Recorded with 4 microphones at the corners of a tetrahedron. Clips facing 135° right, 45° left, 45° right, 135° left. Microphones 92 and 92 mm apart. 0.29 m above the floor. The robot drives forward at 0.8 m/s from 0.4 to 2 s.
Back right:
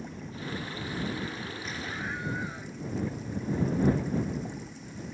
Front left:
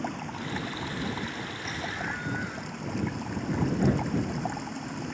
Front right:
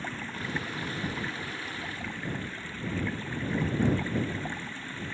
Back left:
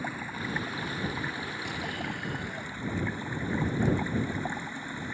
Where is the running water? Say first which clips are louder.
Front left 5 dB, back left 1 dB; 55° left; by 5.2 s 60° left.